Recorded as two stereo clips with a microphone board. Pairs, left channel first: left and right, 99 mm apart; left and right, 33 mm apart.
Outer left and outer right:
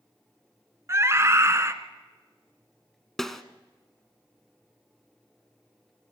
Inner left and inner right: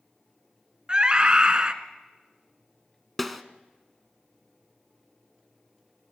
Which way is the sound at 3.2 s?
5° left (ahead or behind).